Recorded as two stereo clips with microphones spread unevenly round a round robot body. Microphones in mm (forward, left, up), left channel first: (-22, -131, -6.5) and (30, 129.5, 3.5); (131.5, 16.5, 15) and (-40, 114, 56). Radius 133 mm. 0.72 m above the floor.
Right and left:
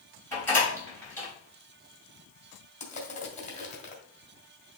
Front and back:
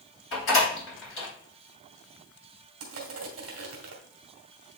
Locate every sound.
0.3 s a door slam: 20° right, 3.5 m
2.8 s crushing: 165° right, 2 m